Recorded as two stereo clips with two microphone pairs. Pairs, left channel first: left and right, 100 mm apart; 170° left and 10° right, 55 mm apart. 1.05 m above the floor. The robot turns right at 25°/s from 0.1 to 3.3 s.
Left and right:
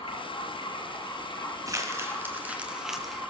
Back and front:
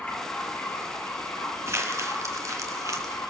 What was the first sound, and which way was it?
Running water, 110° left.